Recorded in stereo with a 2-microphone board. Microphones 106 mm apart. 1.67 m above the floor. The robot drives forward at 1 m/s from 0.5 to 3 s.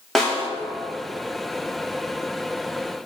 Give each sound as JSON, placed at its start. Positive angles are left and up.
{"t": 0.1, "sound": "a snare drum", "side_deg": 0, "distance_m": 1.3}